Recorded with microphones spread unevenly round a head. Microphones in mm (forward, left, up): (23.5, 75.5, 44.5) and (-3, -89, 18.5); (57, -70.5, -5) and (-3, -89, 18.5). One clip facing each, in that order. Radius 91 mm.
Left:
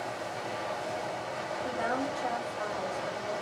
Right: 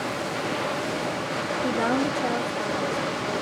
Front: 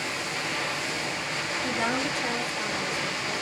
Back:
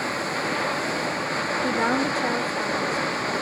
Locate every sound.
0.0 s running water: 125° right, 1.0 m
1.6 s a woman speaking: 125° right, 2.5 m